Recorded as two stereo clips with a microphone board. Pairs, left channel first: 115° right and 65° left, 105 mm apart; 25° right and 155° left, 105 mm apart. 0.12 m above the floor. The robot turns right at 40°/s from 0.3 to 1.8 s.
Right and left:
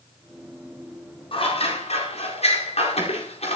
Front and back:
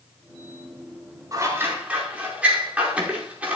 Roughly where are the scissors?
Behind right.